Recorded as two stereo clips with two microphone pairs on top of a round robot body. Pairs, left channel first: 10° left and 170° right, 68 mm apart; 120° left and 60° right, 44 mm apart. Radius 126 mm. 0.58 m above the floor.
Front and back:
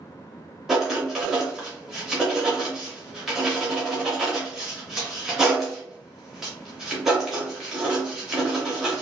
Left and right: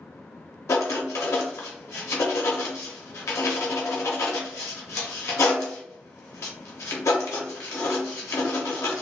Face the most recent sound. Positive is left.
turn(degrees=105)